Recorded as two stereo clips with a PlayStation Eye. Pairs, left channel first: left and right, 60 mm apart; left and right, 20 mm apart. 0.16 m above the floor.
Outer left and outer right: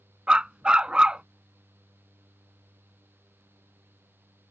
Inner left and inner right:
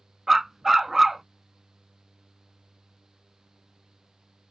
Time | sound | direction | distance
0.3 | a dog barking | 15° right (ahead or behind) | ?